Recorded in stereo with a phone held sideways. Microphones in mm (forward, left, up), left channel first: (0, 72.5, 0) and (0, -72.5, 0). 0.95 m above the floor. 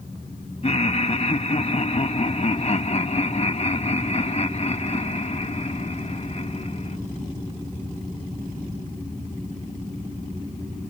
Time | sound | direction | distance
0.6 | laughter | 45° left (ahead or behind) | ?